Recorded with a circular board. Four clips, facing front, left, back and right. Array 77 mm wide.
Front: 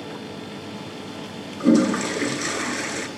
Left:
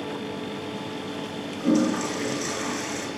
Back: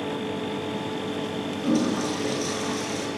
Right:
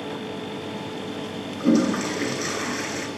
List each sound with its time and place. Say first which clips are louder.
1.6 s a toilet flushing: right 2 dB, front 7 dB; 15° right, 3.5 m